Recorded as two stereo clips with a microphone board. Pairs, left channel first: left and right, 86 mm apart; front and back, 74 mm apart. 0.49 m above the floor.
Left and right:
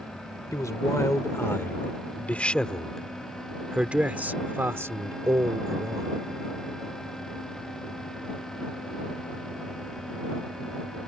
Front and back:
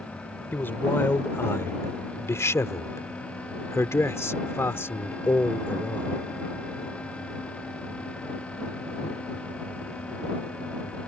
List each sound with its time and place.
0.5 s a man speaking: 55° left; by 6.2 s 60° right